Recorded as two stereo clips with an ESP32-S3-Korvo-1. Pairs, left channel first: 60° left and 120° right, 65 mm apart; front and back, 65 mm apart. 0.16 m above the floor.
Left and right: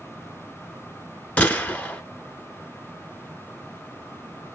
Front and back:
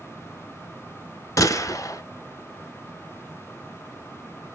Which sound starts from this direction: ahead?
A gunshot, at 1.4 s.